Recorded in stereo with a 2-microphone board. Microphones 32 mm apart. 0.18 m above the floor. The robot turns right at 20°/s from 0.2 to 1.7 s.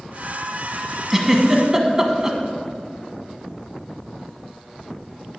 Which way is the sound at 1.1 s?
10° right (ahead or behind).